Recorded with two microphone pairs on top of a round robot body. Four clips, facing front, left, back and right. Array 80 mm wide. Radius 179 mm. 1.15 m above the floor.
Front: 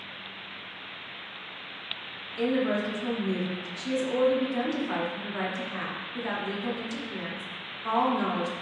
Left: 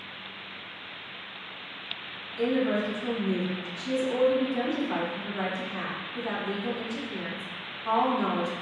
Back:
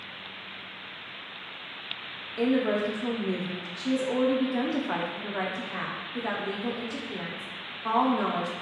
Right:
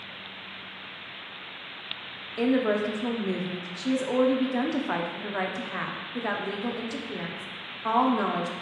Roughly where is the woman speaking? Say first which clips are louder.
Right 2 dB, back 1 dB; right.